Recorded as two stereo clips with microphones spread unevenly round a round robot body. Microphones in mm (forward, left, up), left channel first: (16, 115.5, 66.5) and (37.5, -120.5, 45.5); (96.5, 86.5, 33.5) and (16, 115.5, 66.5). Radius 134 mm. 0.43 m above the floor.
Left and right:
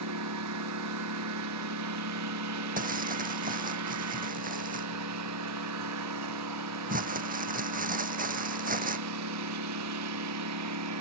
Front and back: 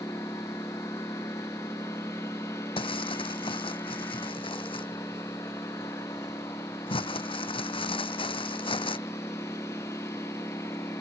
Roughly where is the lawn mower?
Right.